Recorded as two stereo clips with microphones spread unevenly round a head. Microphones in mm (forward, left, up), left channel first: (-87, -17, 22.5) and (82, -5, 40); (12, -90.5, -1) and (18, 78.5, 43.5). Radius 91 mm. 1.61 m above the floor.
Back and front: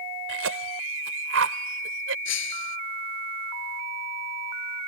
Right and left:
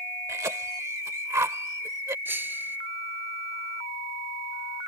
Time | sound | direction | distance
0.3 | a cough | 15° left | ?
2.2 | breaking glass | 165° left | ?